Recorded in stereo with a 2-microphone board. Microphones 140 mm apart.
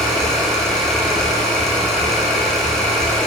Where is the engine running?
5° left (ahead or behind), 3.5 m.